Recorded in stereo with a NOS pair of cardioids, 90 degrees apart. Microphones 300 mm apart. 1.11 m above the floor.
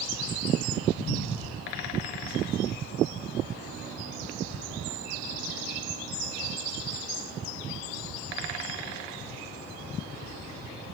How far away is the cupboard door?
About 1.2 m.